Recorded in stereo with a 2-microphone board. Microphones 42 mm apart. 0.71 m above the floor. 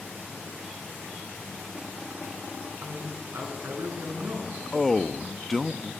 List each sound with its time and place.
2.8 s a man speaking: 55° right (ahead or behind), 8 m; by 4.6 s 60° right (ahead or behind), 9 m
4.7 s a man speaking: 5° left (ahead or behind), 1.0 m